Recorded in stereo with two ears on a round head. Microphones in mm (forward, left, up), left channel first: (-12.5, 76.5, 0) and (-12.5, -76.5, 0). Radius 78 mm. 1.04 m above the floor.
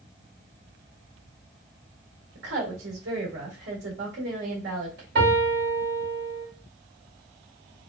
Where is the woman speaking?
65° right (ahead or behind), 1.7 m.